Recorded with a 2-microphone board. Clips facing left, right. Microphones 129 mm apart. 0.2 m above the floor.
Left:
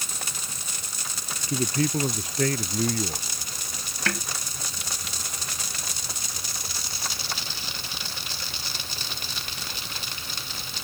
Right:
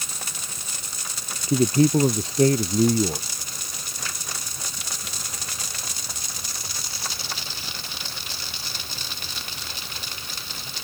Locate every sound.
1.5 s a man speaking: 30° right (ahead or behind)
4.1 s a snare drum: 70° left (ahead or behind)